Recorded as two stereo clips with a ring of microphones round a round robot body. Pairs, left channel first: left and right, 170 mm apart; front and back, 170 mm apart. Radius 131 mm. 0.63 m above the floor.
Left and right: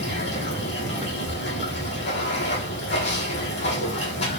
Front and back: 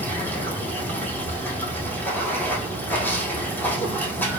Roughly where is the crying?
I don't hear crying.